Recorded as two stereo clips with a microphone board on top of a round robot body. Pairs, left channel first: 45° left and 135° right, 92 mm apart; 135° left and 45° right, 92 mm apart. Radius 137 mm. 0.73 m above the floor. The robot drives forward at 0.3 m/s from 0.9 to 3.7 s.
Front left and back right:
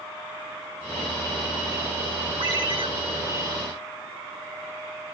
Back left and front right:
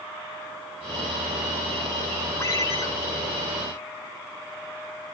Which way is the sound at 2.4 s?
165° right.